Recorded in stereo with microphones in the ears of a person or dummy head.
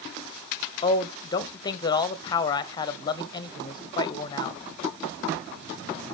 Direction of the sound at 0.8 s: 25° left (ahead or behind).